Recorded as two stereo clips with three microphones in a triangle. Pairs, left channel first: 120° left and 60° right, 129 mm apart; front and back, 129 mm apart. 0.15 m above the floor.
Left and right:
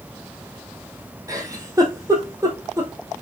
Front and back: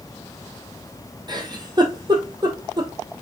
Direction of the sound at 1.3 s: 125° right.